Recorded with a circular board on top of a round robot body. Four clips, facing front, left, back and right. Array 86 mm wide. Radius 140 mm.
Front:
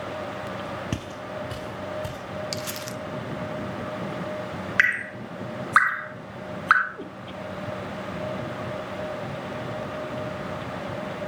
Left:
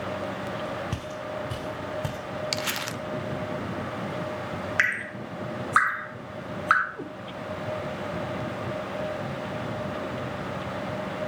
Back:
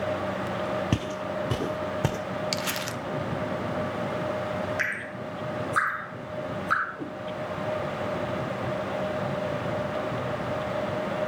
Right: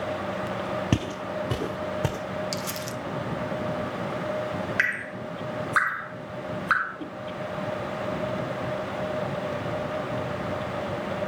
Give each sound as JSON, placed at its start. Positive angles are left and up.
{"t": 0.9, "sound": "footsteps", "azimuth_deg": -110, "distance_m": 0.5}
{"t": 2.5, "sound": "crumpling", "azimuth_deg": 120, "distance_m": 1.0}
{"t": 4.8, "sound": "dripping", "azimuth_deg": 15, "distance_m": 2.5}
{"t": 7.0, "sound": "a cat meowing", "azimuth_deg": 60, "distance_m": 3.5}